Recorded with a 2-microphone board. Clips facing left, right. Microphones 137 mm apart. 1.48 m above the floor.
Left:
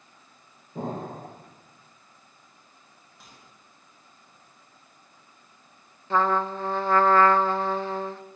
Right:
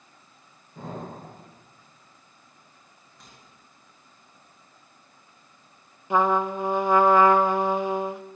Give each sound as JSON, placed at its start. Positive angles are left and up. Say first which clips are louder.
{"t": 0.8, "sound": "an explosion", "louder": "left 4 dB", "side_deg": 50, "distance_m": 9.0}
{"t": 3.2, "sound": "a microwave", "louder": "even", "side_deg": 0, "distance_m": 9.0}
{"t": 6.1, "sound": "a trumpet", "louder": "right 2 dB", "side_deg": -15, "distance_m": 1.0}